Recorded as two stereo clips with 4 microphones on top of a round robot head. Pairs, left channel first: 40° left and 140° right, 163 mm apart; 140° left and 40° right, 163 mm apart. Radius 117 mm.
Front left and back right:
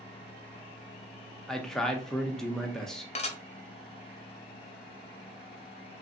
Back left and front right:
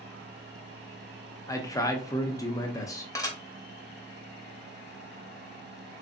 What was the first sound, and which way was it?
A man speaking, 125° left.